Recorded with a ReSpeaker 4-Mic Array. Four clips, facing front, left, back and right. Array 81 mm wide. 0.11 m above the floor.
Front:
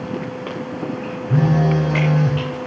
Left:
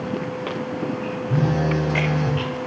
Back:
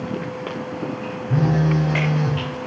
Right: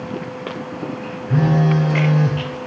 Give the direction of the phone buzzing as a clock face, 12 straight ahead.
3 o'clock.